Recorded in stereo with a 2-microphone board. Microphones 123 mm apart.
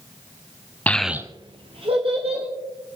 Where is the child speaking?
15° left (ahead or behind), 0.8 m; by 2.5 s 45° right (ahead or behind), 2 m.